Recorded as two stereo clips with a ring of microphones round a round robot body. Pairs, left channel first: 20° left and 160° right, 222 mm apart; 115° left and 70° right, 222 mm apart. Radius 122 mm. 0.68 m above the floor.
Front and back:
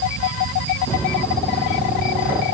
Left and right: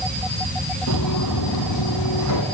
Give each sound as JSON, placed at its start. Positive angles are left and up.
{"t": 0.9, "sound": "footsteps", "azimuth_deg": 100, "distance_m": 1.6}